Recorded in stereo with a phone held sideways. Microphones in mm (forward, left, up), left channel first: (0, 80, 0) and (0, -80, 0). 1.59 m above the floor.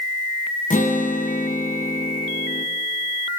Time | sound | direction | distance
0.7 | a guitar | 60° left (ahead or behind) | 1.3 m